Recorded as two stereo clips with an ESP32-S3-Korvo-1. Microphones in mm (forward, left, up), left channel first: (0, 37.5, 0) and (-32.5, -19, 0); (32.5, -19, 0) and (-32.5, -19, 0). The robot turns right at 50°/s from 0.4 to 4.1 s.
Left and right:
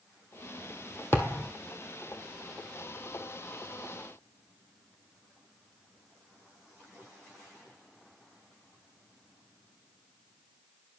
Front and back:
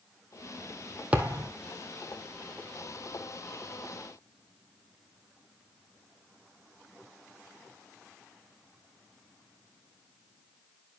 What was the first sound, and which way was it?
A thud, 110° left.